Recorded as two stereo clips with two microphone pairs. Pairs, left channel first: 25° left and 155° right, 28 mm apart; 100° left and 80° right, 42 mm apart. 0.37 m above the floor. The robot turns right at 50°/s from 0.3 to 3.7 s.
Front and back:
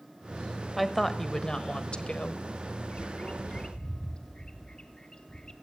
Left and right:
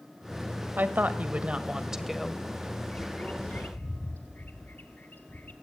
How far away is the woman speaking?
About 1.7 m.